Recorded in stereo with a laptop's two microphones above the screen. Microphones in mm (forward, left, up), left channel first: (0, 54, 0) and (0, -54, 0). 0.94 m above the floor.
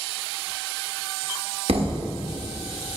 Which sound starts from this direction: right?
A thud, at 1.7 s.